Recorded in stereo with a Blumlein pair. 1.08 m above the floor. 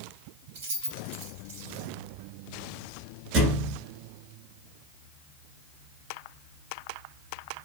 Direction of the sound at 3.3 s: 40° right.